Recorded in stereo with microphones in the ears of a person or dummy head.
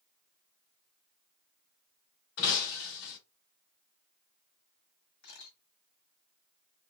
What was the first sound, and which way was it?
Breaking glass, 55° left (ahead or behind).